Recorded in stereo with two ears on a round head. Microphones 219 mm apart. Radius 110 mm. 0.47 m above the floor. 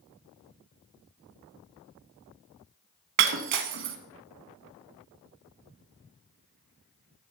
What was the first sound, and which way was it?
Breaking glass, 50° right (ahead or behind).